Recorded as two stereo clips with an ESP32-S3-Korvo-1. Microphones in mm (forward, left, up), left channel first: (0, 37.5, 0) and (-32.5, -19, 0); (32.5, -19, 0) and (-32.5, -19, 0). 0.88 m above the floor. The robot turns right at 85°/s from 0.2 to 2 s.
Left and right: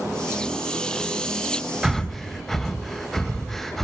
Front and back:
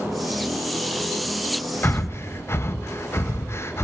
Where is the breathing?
40° right, 0.7 m; by 3.9 s 25° right, 0.7 m.